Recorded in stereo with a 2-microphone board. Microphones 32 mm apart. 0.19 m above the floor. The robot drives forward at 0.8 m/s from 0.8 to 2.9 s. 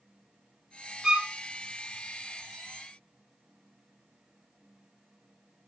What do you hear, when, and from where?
1.0 s a violin: 20° right (ahead or behind), 0.8 m